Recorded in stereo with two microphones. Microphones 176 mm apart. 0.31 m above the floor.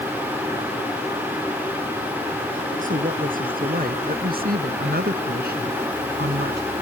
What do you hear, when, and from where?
2.8 s a woman speaking: 50° right (ahead or behind); by 6.6 s 70° right (ahead or behind)